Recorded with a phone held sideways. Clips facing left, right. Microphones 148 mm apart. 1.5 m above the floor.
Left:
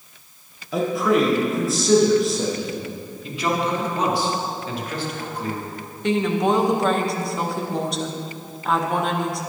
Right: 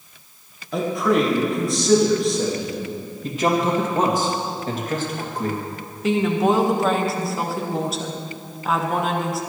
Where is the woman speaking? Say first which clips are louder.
Right 1 dB; centre (ahead or behind), 1.5 m.